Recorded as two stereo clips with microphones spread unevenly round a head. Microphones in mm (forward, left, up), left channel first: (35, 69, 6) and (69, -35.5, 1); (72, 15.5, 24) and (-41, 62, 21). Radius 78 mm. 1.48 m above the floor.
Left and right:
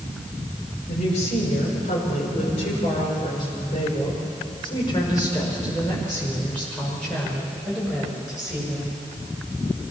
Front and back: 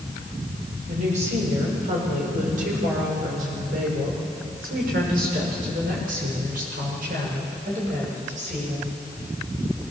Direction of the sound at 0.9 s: 130° left.